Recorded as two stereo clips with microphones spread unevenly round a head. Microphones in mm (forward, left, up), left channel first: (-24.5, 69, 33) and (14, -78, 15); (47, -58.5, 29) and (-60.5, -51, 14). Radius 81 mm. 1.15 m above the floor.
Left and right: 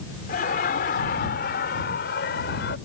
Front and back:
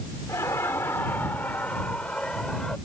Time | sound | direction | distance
0.3 | laughter | 70° left | ?